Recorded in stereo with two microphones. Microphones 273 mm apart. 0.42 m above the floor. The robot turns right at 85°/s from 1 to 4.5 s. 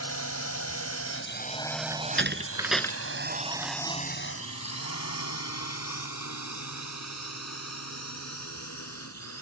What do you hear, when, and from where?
0.0 s a drone: 60° left (ahead or behind); by 9.4 s 75° left (ahead or behind)
1.9 s a door slam: 70° right (ahead or behind); by 3.7 s 80° left